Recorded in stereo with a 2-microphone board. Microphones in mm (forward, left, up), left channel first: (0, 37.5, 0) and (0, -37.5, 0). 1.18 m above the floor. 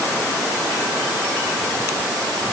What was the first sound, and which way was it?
Only background noise.